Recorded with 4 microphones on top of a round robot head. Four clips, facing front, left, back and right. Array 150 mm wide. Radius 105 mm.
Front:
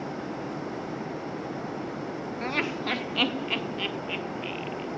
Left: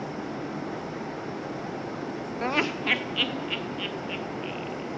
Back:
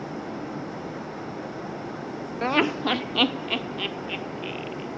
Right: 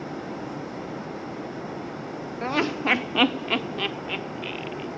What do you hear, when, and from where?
2.4 s laughter: 170° left, 0.6 m; by 4.9 s 105° right, 2.5 m